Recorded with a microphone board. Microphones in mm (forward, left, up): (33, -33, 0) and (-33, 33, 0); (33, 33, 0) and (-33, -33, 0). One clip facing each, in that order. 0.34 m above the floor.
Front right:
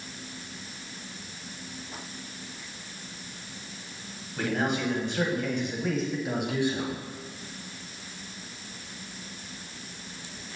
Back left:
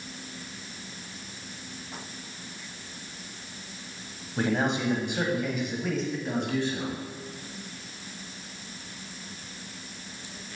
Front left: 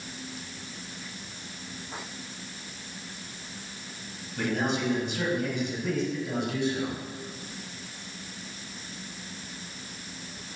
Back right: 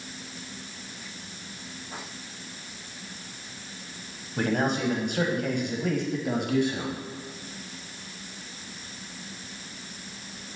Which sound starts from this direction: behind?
A man speaking, at 4.4 s.